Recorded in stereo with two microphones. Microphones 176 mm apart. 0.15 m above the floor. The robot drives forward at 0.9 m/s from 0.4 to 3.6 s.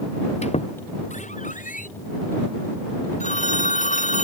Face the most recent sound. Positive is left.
turn(degrees=45)  # may be behind; listen again after turning